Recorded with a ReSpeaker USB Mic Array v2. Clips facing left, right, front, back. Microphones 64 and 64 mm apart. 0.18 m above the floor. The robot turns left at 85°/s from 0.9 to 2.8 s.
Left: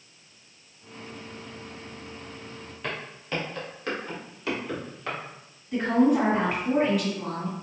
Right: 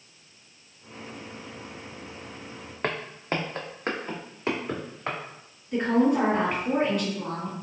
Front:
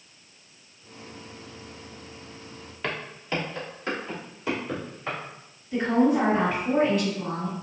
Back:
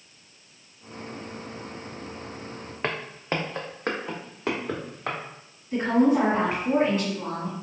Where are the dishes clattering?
No dishes clattering in this recording.